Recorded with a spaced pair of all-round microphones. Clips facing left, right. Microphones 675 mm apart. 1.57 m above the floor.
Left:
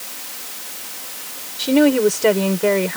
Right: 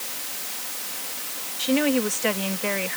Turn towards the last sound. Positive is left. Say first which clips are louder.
# left 8 dB
turn(degrees=85)